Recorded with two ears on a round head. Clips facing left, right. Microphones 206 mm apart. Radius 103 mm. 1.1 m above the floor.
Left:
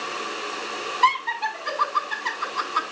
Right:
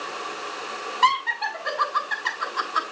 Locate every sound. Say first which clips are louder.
1.0 s laughter: even; 70° right (ahead or behind), 6.5 m